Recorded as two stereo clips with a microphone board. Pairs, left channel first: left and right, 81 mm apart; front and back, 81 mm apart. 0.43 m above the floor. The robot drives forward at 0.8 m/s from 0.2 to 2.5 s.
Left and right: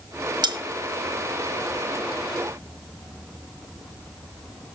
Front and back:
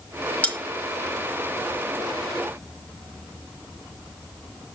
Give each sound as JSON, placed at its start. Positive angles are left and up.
{"t": 0.4, "sound": "cutlery clinking", "azimuth_deg": -75, "distance_m": 1.3}